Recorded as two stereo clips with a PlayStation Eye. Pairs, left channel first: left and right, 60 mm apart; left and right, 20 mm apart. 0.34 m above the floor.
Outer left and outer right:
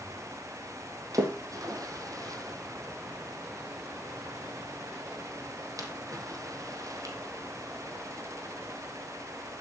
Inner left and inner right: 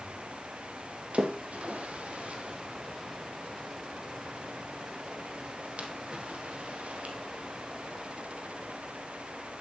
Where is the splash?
65° right (ahead or behind), 2 m.